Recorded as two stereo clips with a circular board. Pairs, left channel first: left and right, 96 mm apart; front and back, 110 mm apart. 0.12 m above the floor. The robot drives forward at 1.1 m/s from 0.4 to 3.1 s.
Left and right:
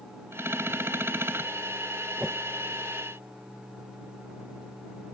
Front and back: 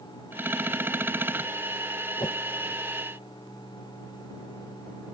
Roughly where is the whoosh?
Ahead.